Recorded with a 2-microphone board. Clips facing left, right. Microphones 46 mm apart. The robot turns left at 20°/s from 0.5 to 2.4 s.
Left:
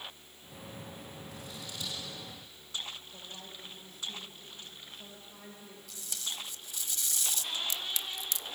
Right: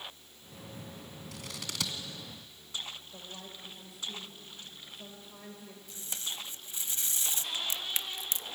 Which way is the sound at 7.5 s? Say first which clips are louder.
Right 1 dB; 35° right (ahead or behind).